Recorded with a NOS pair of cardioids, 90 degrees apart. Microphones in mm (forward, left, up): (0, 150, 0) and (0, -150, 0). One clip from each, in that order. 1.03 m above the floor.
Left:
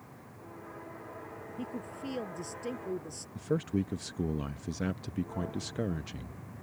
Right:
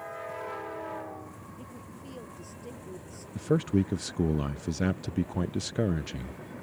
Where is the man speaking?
25° right.